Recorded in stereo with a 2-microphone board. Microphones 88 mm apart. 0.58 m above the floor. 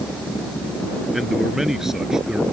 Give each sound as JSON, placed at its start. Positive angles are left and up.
{"t": 1.1, "sound": "a man speaking", "side_deg": 0}